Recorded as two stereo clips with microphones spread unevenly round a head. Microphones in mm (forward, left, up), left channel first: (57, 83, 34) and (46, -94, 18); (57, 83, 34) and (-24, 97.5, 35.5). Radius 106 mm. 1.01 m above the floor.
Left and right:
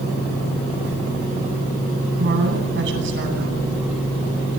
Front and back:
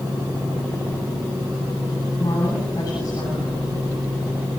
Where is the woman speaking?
80° right, 9.5 m.